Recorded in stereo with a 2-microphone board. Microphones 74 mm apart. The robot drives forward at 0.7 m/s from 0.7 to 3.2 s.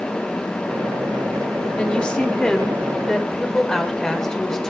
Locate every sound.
1.8 s a woman speaking: 15° left (ahead or behind), 0.8 m; by 4.7 s 10° left (ahead or behind), 1.5 m